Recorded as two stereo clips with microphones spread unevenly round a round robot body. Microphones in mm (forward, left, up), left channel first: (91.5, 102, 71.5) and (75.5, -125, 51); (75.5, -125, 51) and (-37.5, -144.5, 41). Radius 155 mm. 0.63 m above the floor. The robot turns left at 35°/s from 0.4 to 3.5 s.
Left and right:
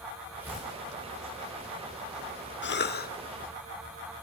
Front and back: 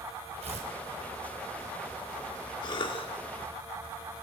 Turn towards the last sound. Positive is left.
turn(degrees=30)